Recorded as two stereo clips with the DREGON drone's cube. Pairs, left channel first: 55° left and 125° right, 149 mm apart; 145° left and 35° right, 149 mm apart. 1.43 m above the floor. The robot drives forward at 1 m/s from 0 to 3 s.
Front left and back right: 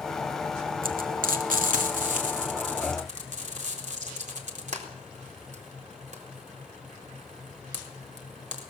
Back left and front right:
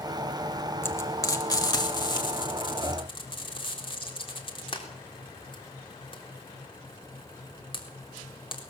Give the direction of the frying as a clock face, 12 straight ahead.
5 o'clock.